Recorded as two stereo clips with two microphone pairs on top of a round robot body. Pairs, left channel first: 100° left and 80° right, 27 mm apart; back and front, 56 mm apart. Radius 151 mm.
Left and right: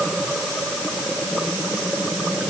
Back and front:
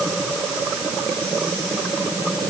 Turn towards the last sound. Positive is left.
No sound to turn to.